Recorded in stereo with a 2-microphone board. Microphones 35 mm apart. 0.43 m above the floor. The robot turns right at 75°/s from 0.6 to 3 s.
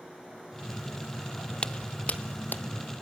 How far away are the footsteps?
About 0.6 m.